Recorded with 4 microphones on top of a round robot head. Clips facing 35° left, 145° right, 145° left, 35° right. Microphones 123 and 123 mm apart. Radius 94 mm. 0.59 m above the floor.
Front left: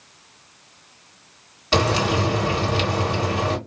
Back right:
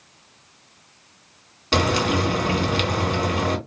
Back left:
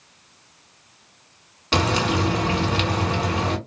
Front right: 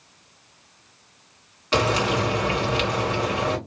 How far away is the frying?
About 2.0 m.